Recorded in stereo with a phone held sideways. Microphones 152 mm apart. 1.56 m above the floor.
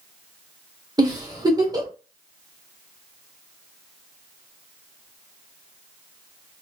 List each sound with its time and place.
1.0 s a giggle: 25° right (ahead or behind), 1.0 m